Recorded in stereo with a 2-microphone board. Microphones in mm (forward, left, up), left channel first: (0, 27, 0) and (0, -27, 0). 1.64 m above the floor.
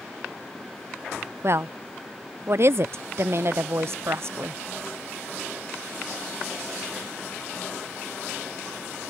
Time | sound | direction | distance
1.4 | a woman speaking | 55° right (ahead or behind) | ?